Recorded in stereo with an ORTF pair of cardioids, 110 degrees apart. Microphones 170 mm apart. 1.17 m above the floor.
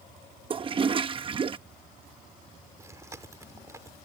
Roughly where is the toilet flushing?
Ahead right.